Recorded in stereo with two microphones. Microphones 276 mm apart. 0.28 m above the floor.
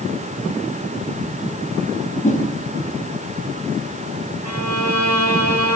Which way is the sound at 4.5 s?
75° right (ahead or behind).